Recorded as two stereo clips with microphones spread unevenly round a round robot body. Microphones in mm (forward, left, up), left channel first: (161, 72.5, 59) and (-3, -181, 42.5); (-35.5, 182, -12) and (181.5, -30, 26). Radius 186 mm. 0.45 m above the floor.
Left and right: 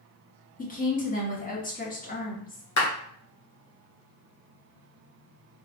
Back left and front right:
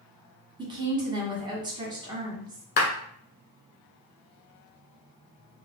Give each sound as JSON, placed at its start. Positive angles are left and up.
{"t": 0.6, "sound": "a woman speaking", "azimuth_deg": 30, "distance_m": 1.2}
{"t": 2.8, "sound": "a clap", "azimuth_deg": 90, "distance_m": 1.7}